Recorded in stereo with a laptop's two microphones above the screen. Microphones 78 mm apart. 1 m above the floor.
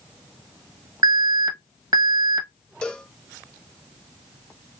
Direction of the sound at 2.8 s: 15° left (ahead or behind).